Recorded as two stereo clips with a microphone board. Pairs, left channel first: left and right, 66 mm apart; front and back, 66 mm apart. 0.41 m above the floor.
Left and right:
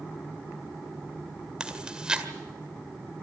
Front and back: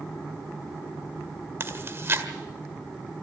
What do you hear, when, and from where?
1.6 s chewing: 160° right, 1.8 m